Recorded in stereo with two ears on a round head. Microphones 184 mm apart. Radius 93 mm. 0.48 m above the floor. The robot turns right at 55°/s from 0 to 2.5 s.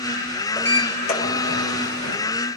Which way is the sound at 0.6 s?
10° left.